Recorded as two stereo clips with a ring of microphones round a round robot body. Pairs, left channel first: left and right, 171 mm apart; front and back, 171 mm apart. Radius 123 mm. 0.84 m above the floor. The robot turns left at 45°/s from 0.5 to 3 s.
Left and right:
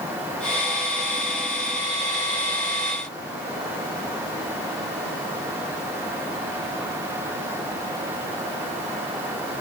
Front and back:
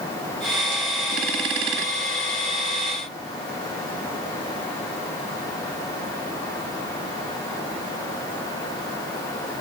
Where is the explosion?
No explosion in this recording.